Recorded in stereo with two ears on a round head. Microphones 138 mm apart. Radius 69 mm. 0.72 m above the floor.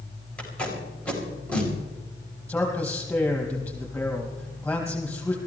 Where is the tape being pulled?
10° left (ahead or behind), 4 m.